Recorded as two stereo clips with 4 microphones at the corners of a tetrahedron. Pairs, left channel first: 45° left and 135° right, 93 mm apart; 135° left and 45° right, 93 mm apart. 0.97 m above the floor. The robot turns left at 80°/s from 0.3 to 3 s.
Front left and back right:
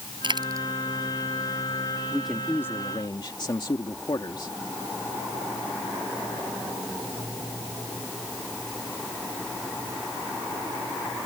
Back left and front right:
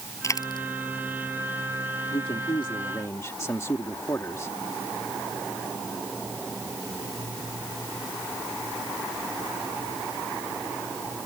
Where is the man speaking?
150° left; by 4.5 s 80° left.